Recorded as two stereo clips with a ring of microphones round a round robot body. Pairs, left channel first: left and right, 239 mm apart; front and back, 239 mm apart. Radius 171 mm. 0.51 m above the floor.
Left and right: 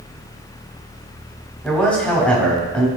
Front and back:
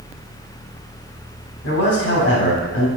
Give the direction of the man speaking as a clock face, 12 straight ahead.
12 o'clock.